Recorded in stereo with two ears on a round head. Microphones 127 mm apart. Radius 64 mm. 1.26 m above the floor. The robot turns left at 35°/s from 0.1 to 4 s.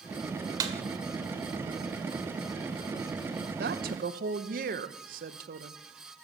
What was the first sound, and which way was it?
A snare drum, 25° right (ahead or behind).